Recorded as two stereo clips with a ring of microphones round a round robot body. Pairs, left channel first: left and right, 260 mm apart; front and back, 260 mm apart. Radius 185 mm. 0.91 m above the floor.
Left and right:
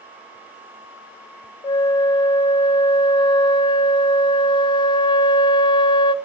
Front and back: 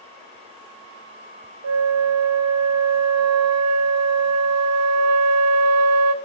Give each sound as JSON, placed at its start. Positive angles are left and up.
{"t": 1.6, "sound": "a flute", "azimuth_deg": 165, "distance_m": 0.8}